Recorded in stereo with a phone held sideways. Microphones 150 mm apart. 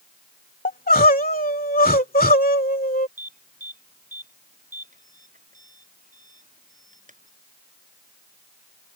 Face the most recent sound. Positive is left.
turn(degrees=-55)  # may be behind; listen again after turning